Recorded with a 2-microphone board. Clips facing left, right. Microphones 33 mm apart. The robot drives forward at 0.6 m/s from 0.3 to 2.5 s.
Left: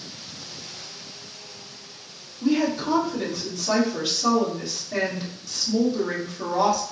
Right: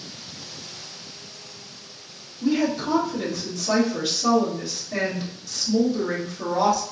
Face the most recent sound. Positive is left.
turn(degrees=5)  # may be behind; listen again after turning